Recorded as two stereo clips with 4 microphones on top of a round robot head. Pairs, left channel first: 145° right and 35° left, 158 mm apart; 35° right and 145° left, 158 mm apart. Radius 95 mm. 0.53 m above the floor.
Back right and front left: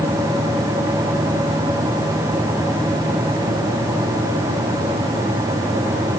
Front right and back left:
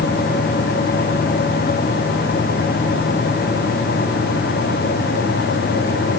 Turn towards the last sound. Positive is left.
No sound to turn to.